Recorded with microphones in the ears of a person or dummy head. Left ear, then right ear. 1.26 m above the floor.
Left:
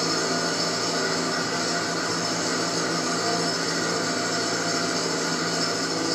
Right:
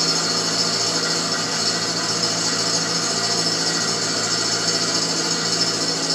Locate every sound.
0.0 s an engine running: 40° right (ahead or behind), 1.0 m